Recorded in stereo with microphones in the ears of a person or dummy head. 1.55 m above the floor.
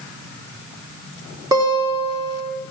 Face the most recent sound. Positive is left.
turn(degrees=-20)  # may be behind; listen again after turning